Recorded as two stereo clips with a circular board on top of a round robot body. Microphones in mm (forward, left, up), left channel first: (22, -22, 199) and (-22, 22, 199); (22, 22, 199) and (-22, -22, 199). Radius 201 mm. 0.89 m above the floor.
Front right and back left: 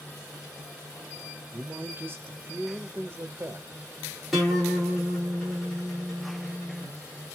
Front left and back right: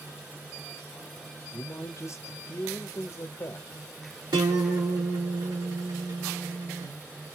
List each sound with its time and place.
1.5 s a man speaking: 85° left, 0.8 m
4.3 s a guitar: 135° right, 1.1 m